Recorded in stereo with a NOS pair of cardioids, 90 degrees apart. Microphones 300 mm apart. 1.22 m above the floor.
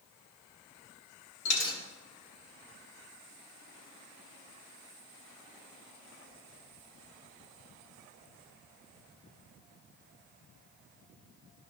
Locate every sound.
1.4 s a dropped coin: 60° left, 1.6 m